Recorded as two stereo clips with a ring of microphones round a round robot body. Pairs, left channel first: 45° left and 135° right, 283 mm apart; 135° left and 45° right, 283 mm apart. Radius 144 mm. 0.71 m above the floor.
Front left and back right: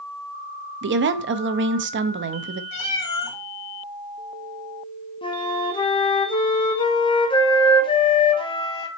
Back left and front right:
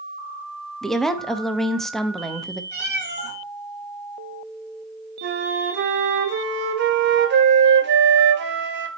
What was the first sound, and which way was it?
A woman speaking, 135° right.